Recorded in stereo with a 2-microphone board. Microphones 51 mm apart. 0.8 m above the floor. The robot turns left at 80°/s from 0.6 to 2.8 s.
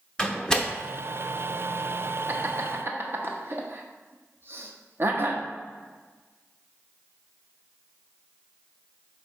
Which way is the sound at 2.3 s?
45° right (ahead or behind).